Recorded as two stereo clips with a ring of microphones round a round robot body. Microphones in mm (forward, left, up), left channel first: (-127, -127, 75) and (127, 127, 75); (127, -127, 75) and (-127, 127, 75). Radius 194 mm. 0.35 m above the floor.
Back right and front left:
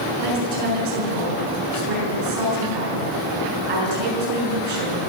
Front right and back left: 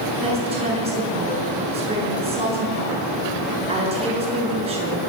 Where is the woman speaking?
60° left, 7 m.